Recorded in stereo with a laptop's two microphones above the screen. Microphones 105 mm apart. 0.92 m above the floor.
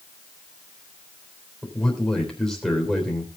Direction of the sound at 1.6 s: 5° left (ahead or behind).